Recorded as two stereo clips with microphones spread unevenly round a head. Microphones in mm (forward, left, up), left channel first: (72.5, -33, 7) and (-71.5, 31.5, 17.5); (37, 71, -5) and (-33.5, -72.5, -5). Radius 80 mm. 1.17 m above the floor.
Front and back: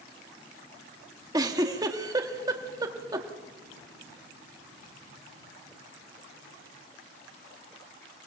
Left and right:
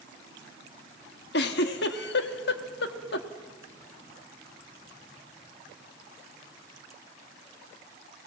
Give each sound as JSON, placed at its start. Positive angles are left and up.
{"t": 1.3, "sound": "a giggle", "azimuth_deg": 90, "distance_m": 1.5}